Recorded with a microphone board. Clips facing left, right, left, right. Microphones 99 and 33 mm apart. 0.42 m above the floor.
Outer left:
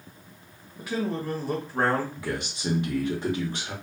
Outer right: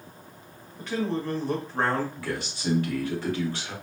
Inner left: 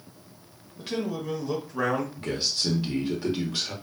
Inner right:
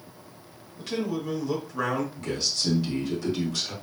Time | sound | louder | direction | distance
0.8 | a man speaking | outer right 1 dB, inner right 1 dB | 10° left (ahead or behind) | 1.3 m
2.2 | a man speaking | outer left 1 dB, even | 20° left (ahead or behind) | 1.1 m